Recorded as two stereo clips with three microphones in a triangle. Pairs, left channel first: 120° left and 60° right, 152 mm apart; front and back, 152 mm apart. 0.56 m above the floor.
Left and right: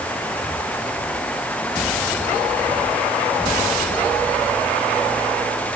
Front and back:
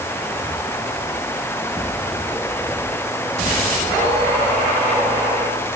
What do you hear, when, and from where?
Only background noise.